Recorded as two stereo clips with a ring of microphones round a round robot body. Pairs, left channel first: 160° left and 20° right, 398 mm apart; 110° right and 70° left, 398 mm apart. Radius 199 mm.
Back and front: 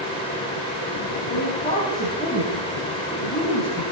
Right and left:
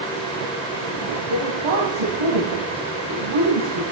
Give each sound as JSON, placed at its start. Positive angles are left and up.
{"t": 1.3, "sound": "a woman speaking", "azimuth_deg": 85, "distance_m": 2.5}